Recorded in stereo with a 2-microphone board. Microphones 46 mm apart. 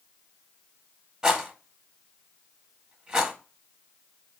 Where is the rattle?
15° right (ahead or behind), 0.8 m.